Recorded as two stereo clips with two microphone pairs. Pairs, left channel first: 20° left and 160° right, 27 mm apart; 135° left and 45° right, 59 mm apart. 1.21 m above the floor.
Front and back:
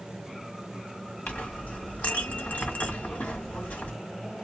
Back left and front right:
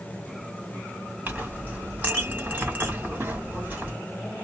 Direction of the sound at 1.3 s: 15° left.